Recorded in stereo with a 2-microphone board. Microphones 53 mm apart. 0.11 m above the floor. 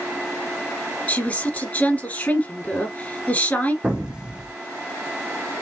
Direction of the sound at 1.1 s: 25° left (ahead or behind).